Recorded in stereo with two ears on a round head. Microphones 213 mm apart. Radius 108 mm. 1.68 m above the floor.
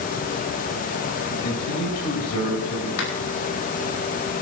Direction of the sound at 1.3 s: 70° left (ahead or behind).